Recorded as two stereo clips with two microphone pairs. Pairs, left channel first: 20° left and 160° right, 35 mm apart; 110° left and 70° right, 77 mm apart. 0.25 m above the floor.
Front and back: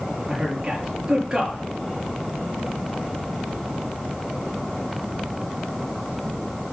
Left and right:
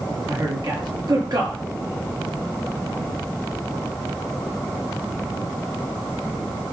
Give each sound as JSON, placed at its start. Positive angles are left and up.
{"t": 0.3, "sound": "a man speaking", "azimuth_deg": -90, "distance_m": 6.0}